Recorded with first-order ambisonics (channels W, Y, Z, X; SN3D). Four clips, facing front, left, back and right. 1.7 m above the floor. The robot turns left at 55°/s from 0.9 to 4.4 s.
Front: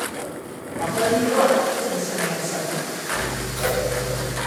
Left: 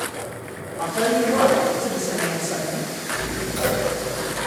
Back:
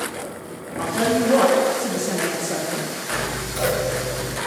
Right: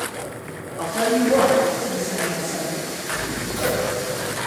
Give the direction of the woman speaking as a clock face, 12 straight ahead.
4 o'clock.